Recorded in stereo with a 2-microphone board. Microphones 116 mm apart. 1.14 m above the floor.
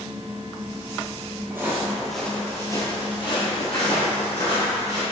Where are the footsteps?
20° right (ahead or behind), 1.5 m; by 5.0 s 65° left (ahead or behind), 3 m.